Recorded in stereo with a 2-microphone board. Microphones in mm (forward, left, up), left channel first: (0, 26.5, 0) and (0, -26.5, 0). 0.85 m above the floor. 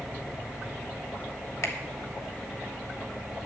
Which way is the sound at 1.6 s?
55° left (ahead or behind).